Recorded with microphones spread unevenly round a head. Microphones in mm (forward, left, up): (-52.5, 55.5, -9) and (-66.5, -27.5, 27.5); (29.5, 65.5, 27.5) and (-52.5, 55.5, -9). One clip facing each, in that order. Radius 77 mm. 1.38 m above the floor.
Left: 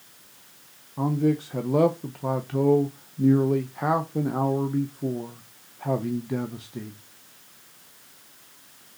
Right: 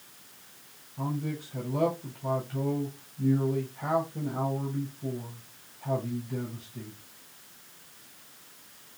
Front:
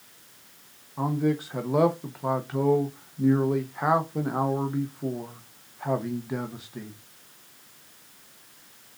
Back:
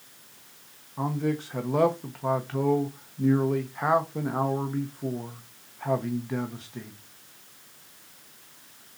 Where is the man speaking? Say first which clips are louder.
Left 10 dB, front 2 dB; 75° left, 0.7 m.